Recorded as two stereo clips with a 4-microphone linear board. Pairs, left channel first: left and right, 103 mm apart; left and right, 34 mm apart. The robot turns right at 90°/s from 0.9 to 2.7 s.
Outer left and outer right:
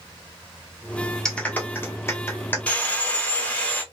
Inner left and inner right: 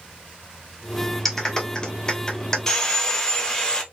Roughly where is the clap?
Centre.